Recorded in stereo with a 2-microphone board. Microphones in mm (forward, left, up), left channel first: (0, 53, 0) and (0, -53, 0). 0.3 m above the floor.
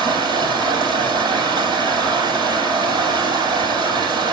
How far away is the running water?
About 7 m.